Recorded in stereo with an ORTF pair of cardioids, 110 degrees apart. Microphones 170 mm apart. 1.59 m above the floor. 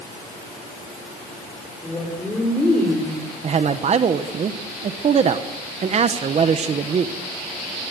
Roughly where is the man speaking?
Ahead right.